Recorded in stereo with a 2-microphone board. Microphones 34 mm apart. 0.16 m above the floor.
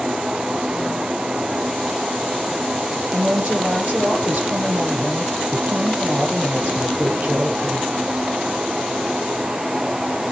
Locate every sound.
3.1 s a woman speaking: 60° right (ahead or behind), 4 m